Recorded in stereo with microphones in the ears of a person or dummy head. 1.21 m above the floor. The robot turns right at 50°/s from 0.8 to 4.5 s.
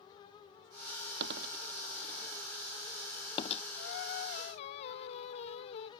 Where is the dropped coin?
65° right (ahead or behind); by 3.6 s 45° left (ahead or behind).